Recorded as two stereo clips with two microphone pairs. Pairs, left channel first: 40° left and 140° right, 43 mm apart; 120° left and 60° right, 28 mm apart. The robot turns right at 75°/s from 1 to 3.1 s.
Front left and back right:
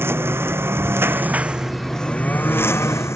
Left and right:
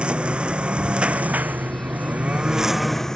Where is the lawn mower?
110° right; by 3.2 s 45° left.